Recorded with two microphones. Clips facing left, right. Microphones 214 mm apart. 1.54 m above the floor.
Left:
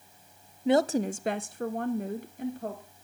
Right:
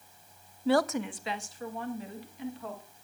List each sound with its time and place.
0.7 s a woman speaking: 15° left (ahead or behind), 0.6 m; by 2.8 s 45° left (ahead or behind), 1.7 m